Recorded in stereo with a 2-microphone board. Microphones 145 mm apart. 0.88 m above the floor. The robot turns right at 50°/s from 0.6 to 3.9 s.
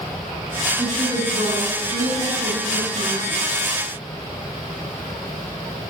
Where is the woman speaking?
165° right, 8.5 m; by 3.4 s 35° right, 8.5 m.